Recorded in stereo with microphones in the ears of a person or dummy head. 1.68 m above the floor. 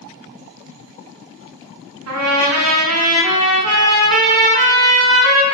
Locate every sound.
2.1 s a trumpet: 80° right, 0.6 m